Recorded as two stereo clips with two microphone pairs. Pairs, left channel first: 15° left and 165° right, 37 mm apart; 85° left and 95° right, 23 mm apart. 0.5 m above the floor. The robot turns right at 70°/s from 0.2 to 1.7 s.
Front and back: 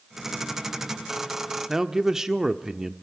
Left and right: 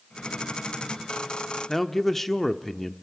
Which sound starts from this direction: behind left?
A man speaking, at 1.7 s.